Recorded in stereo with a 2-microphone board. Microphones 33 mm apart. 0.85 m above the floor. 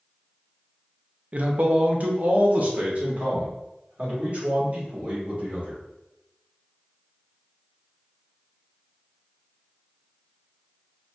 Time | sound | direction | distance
1.3 | a man speaking | 40° right (ahead or behind) | 0.5 m